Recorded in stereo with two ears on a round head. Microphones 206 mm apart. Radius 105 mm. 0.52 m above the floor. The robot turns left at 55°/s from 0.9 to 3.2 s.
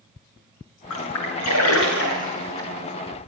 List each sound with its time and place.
0.9 s a splash: 70° left (ahead or behind), 8.5 m; by 2.7 s 10° left (ahead or behind), 8.5 m